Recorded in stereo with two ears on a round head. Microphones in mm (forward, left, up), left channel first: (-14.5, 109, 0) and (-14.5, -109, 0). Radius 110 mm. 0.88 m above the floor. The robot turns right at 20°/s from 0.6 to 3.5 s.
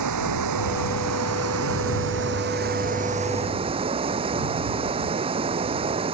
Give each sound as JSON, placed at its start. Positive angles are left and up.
{"t": 0.0, "sound": "running water", "azimuth_deg": -80}